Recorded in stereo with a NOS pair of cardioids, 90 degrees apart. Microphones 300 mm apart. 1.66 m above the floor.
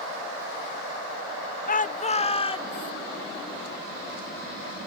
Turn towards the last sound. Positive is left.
turn(degrees=15)